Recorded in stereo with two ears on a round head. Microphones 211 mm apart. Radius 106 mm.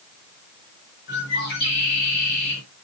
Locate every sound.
1.1 s a bird: 45° left (ahead or behind), 5.5 m